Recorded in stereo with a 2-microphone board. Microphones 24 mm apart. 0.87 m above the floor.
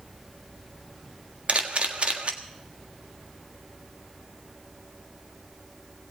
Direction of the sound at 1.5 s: 65° right (ahead or behind).